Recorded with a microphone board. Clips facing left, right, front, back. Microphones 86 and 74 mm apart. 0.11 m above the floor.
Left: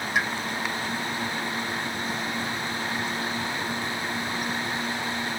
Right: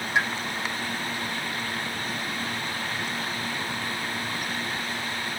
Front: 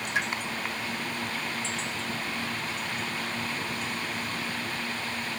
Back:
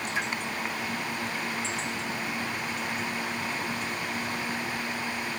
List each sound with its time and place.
0.1 s a pop: 25° right, 3 m